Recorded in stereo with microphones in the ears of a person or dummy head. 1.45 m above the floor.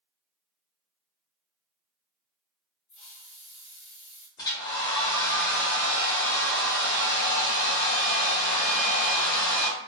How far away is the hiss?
About 1.2 m.